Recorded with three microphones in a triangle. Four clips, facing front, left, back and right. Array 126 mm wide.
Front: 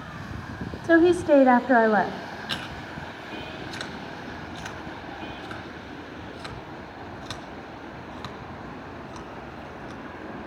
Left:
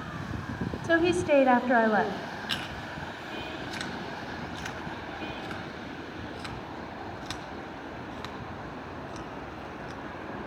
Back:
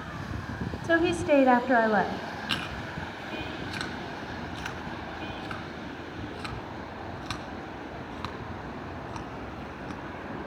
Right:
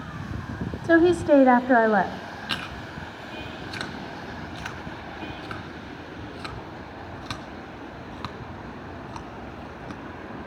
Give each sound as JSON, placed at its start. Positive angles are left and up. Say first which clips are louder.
{"t": 0.8, "sound": "a woman speaking", "louder": "right 7 dB, front 6 dB", "azimuth_deg": -55, "distance_m": 1.1}
{"t": 2.5, "sound": "chewing", "louder": "right 2 dB, even", "azimuth_deg": -120, "distance_m": 2.5}